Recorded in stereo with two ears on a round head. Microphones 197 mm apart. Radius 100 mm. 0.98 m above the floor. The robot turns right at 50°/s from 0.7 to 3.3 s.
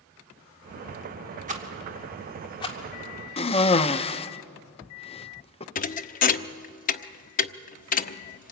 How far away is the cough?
About 0.8 m.